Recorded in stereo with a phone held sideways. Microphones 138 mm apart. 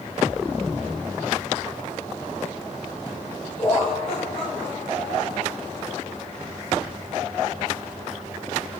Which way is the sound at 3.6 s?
45° left (ahead or behind).